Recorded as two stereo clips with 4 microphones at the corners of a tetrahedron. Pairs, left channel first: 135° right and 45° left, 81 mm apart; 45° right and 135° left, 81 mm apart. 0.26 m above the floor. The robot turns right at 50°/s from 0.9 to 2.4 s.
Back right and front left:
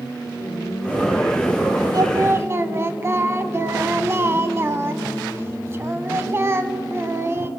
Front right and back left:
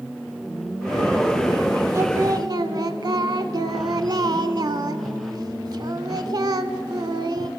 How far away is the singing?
About 0.6 m.